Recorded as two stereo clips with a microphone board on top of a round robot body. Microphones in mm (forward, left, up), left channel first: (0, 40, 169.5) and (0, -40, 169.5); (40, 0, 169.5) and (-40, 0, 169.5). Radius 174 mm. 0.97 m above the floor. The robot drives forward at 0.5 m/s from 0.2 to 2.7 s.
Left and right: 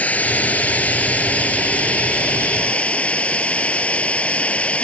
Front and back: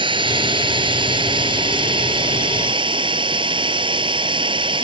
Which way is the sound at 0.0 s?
160° left.